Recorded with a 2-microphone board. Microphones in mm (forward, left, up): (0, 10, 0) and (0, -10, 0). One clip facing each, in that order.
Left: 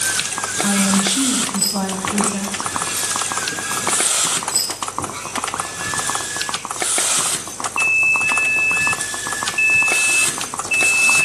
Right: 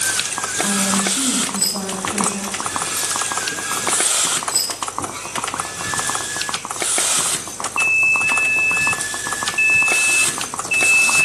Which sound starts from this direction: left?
A woman speaking, at 0.6 s.